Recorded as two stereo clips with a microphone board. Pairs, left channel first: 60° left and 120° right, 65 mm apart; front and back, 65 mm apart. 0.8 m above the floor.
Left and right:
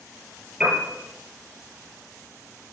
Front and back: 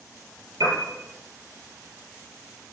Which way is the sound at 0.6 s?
160° left.